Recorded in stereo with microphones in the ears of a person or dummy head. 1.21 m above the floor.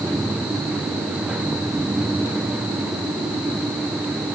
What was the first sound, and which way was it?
Only background noise.